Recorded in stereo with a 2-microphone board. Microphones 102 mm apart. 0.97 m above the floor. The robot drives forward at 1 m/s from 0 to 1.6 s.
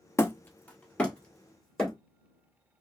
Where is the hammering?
25° left (ahead or behind), 0.5 m; by 1.9 s 5° left (ahead or behind), 1.9 m.